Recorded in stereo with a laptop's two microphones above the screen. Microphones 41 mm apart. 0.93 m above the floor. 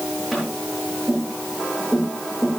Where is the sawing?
No sawing in this recording.